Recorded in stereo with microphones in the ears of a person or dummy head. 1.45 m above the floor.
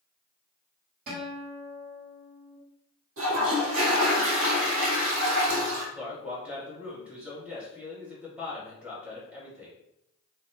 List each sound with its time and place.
1.1 s a guitar: 45° right (ahead or behind), 1.9 m
3.2 s a toilet flushing: 75° right (ahead or behind), 1.4 m
6.0 s a man speaking: 10° right (ahead or behind), 1.4 m